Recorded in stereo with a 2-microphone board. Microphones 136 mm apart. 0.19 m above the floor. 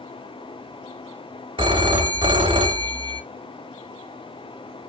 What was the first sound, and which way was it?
A phone ringing, 40° right (ahead or behind).